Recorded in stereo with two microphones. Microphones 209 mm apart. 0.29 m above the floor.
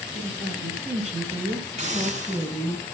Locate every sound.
0.1 s a woman speaking: 35° right (ahead or behind), 2 m; by 2.8 s 10° right (ahead or behind), 2 m
1.8 s a hiss: 35° right (ahead or behind), 3 m